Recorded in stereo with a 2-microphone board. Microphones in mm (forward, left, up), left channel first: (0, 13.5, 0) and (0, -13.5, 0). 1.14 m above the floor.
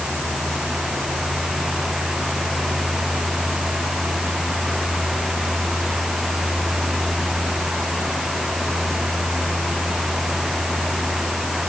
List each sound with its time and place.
Only background noise.